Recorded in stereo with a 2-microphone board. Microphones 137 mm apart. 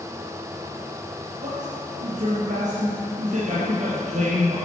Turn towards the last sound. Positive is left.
turn(degrees=-65)  # may be behind; listen again after turning